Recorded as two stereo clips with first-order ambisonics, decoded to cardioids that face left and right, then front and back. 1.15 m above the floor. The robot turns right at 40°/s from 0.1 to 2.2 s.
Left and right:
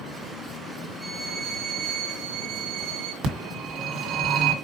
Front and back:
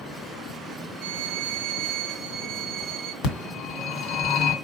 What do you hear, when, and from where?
1.0 s a violin: 160° right, 1.2 m; by 3.1 s 115° right, 1.2 m
3.2 s a phone ringing: 45° right, 1.8 m